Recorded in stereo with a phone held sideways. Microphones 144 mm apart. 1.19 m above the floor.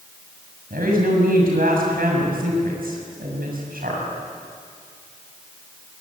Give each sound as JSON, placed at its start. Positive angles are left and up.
{"t": 0.7, "sound": "a woman speaking", "side_deg": -90, "distance_m": 6.5}